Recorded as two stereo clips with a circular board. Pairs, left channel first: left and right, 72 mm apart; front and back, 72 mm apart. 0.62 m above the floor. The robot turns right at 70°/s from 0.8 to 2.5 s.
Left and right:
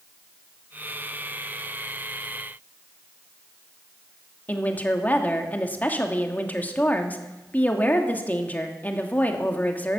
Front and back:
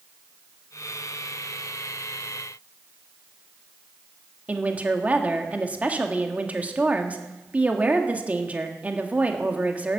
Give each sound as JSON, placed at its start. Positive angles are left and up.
{"t": 4.5, "sound": "a woman speaking", "azimuth_deg": 130, "distance_m": 1.3}